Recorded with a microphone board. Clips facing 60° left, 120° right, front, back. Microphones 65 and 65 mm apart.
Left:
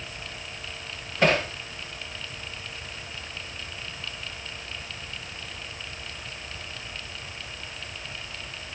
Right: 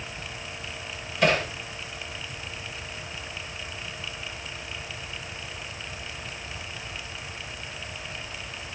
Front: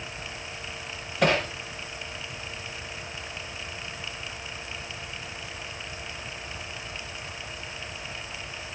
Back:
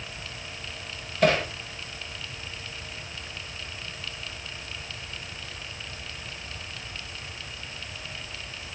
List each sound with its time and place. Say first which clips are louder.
1.2 s hammering: left 1 dB, back 1 dB; straight ahead, 8 m